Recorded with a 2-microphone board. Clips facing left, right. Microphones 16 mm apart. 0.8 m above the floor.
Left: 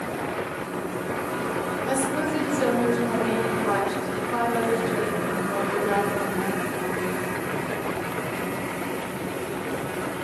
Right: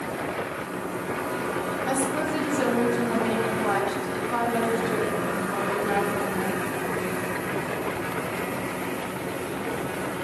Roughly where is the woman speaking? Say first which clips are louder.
Left 1 dB; right.